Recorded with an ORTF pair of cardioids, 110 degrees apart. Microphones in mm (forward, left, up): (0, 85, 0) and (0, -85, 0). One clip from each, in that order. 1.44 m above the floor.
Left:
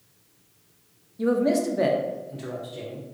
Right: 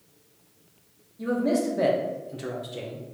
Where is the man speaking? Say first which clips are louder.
Left 3 dB; 30° left, 0.7 m; by 3.0 s 40° right, 0.9 m.